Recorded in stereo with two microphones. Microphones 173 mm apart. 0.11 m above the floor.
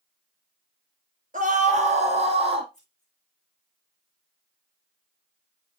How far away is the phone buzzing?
I don't hear a phone buzzing.